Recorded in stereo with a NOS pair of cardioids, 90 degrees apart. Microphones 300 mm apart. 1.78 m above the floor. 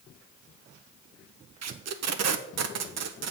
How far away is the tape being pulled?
About 1.0 m.